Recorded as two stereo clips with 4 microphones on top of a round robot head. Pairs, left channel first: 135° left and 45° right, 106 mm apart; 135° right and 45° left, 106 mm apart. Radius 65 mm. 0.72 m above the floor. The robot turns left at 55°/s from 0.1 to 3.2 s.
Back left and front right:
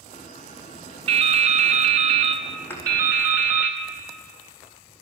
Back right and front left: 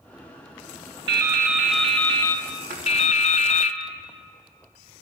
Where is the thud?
65° left, 5 m; by 2.9 s 55° left, 5 m.